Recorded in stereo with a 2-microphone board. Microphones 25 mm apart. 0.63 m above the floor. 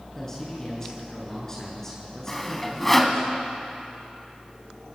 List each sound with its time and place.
0.1 s a man speaking: 15° left (ahead or behind), 7.5 m
2.3 s sawing: 10° left (ahead or behind), 1.7 m